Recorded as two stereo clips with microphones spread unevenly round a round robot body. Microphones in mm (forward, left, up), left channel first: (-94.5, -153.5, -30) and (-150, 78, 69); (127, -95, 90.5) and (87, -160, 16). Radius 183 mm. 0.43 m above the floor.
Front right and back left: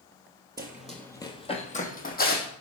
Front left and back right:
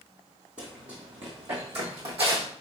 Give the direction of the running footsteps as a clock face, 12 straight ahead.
7 o'clock.